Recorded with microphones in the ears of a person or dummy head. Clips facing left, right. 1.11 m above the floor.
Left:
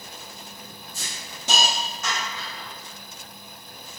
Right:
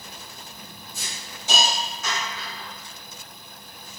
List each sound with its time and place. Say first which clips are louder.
0.9 s a hiss: right 1 dB; 55° left (ahead or behind), 0.9 m